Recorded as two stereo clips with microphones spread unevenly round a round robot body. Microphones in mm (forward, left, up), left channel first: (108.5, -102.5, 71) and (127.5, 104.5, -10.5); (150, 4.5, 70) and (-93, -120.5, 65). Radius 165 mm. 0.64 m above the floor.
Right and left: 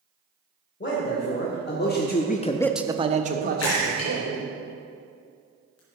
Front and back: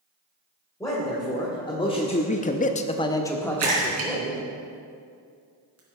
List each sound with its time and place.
0.8 s a man speaking: 50° right, 2.5 m; by 4.5 s 115° left, 2.5 m
3.6 s a splash: 120° right, 3 m